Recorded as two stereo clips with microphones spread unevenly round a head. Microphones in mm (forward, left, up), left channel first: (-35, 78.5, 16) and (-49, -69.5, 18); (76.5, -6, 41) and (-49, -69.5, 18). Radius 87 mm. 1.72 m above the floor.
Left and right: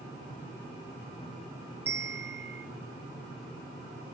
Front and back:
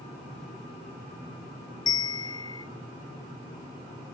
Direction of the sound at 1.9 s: 20° right.